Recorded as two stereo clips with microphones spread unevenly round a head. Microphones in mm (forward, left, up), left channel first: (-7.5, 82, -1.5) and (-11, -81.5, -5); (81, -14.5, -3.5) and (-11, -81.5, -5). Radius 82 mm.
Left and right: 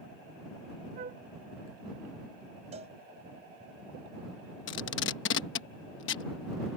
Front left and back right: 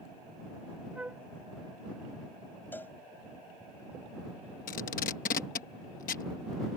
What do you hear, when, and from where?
0.9 s a flute: 70° right
2.7 s a cowbell: 35° right
4.7 s tape being pulled: 65° left